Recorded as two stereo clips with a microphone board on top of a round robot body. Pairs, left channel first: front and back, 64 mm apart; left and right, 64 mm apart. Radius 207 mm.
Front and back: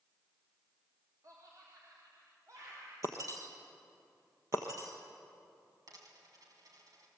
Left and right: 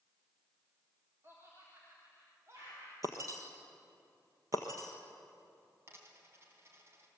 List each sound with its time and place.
1.2 s laughter: 145° right, 4 m; by 2.9 s 140° right, 5 m
3.0 s breaking glass: 135° right, 1.2 m
5.9 s a dropped coin: 145° right, 3.5 m